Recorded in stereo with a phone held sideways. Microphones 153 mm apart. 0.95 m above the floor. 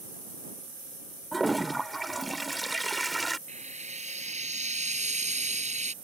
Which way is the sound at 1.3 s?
Centre (ahead or behind).